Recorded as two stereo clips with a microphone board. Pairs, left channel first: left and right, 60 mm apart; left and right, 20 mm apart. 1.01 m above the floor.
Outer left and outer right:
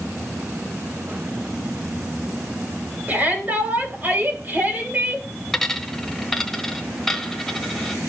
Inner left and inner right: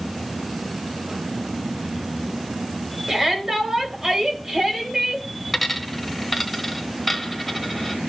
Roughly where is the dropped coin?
Centre.